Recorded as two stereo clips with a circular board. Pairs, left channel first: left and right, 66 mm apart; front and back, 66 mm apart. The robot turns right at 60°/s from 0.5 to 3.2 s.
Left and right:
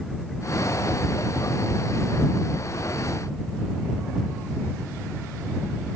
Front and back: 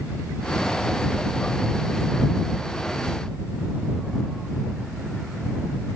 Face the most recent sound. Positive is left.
No sound to turn to.